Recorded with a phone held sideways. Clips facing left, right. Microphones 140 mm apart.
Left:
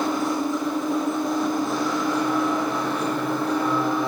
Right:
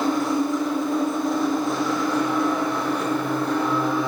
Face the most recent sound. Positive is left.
turn(degrees=0)  # may be behind; listen again after turning